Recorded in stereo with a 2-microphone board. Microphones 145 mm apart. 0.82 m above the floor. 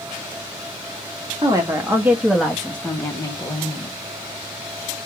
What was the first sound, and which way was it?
A woman speaking, 25° right (ahead or behind).